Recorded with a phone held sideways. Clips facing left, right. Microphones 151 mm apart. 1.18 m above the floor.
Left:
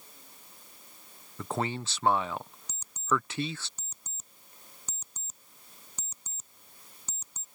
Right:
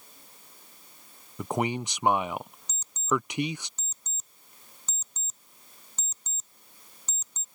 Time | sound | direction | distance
1.4 | a man speaking | 15° right (ahead or behind) | ?
2.7 | an alarm clock | 10° left (ahead or behind) | ?